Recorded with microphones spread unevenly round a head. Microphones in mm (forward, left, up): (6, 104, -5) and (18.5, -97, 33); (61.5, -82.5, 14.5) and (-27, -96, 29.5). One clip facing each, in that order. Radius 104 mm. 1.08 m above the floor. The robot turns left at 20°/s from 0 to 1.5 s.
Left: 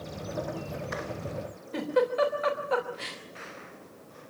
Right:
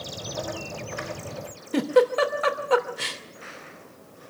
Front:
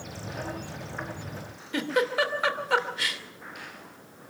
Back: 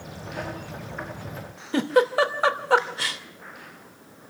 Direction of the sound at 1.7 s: 120° right.